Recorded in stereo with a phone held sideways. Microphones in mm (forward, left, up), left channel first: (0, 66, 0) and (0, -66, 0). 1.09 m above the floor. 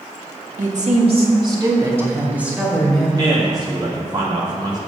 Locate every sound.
0.6 s a woman speaking: 70° right (ahead or behind), 2.0 m; by 3.1 s centre (ahead or behind), 4 m
3.2 s a man speaking: 35° right (ahead or behind), 2 m